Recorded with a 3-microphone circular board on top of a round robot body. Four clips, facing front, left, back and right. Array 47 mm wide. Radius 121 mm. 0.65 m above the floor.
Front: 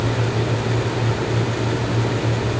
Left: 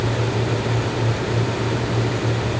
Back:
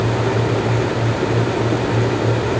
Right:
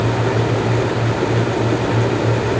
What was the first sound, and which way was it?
Only background noise.